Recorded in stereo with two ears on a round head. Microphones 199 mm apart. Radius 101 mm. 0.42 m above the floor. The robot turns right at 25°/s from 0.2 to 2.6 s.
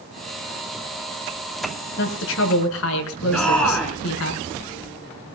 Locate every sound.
2.0 s a woman speaking: 50° left (ahead or behind), 5.5 m; by 4.3 s 65° left (ahead or behind), 5.5 m
3.3 s a shout: 5° left (ahead or behind), 4 m